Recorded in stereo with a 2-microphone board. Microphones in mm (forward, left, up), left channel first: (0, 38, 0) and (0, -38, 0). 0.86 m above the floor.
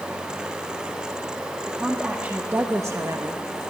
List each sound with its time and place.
1.7 s a woman speaking: 10° right (ahead or behind), 2 m; by 3.4 s 45° right (ahead or behind), 1.2 m